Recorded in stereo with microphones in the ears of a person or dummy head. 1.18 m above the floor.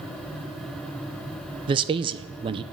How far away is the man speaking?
About 0.6 m.